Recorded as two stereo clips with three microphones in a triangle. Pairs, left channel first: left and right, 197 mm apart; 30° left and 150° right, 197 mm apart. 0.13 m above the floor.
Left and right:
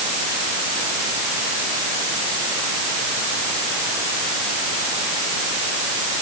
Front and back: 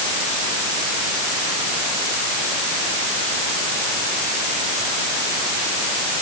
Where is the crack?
No crack in this recording.